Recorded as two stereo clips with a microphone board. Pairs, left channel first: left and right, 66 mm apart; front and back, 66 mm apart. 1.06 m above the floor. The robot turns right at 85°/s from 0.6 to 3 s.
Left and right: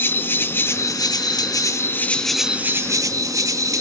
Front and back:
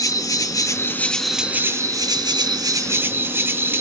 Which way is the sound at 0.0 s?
35° left.